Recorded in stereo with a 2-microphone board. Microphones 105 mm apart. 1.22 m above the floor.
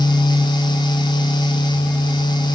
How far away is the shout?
No shout in this recording.